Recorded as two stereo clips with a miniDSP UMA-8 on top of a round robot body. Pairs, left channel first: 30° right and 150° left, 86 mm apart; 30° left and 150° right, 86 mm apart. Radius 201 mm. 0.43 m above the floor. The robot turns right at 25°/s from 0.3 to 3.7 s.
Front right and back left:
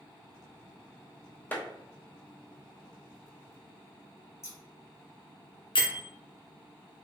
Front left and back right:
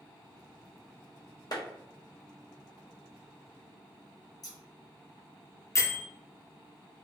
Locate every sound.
1.5 s a clap: 35° left, 1.1 m
4.4 s scissors: 15° left, 1.4 m
5.8 s a bell: 25° right, 0.7 m